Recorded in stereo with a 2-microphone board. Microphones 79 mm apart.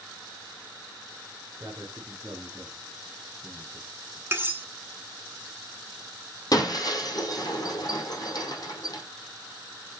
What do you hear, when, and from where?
1.6 s a man speaking: 45° right (ahead or behind), 1.6 m; by 4.2 s centre (ahead or behind), 1.5 m
4.3 s cutlery clinking: 30° right (ahead or behind), 0.9 m
6.5 s breaking glass: 50° left (ahead or behind), 1.6 m